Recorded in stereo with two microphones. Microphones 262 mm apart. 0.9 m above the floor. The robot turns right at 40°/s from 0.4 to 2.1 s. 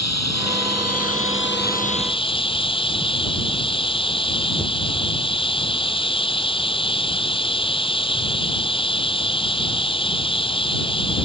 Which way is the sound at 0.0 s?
90° left.